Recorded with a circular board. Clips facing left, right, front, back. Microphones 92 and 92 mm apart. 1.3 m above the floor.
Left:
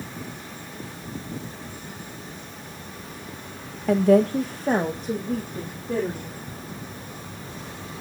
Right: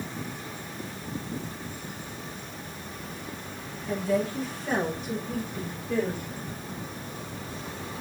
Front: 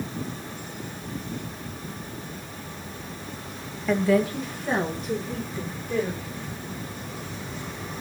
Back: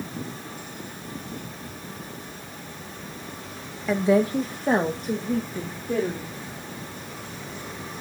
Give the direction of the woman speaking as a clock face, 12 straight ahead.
9 o'clock.